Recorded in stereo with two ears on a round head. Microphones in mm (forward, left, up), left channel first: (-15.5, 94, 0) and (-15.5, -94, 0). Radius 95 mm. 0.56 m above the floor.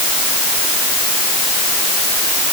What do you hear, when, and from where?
Only background noise.